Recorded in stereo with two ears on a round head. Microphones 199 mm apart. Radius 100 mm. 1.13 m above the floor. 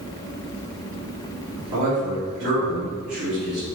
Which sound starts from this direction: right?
A man speaking, at 1.7 s.